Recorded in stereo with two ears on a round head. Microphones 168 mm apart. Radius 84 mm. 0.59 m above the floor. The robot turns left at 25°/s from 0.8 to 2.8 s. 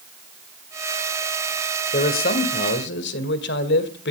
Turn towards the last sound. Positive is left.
turn(degrees=60)  # may be behind; listen again after turning